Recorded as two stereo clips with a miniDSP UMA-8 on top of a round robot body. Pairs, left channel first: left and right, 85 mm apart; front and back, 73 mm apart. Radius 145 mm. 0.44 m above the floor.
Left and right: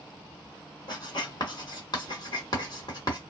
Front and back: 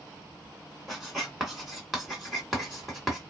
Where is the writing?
95° left, 1.9 m.